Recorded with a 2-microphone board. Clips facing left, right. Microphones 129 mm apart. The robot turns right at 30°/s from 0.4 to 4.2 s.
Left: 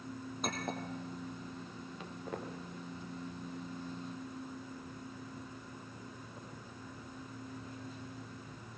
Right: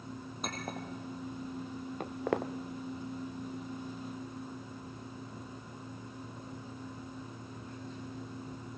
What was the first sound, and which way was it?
A clink, centre (ahead or behind).